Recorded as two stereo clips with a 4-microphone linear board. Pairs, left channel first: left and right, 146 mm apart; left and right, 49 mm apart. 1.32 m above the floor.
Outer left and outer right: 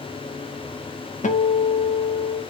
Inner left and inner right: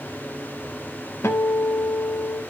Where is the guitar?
60° left (ahead or behind), 1.2 m.